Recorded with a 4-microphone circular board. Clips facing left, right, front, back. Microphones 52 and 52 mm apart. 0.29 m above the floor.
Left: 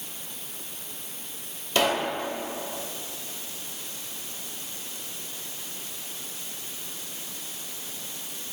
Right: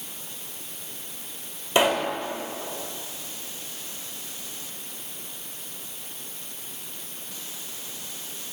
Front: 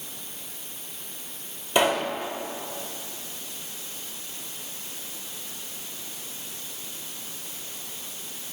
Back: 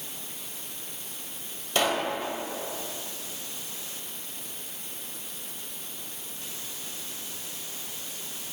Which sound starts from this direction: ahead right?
A pop, at 1.8 s.